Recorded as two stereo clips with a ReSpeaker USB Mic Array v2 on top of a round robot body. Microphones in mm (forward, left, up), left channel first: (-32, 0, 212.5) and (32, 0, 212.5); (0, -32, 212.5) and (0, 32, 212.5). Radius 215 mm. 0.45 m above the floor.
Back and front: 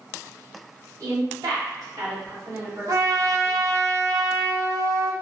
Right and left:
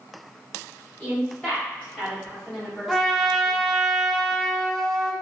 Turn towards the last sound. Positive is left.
turn(degrees=5)